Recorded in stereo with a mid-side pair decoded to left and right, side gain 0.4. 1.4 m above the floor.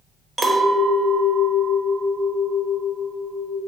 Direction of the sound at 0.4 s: 20° right.